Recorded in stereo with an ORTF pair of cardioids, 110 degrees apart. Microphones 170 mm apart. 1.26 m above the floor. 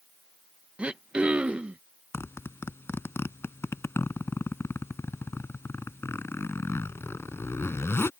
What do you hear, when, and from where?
0.8 s throat clearing: 5° right
2.1 s a zipper: 15° left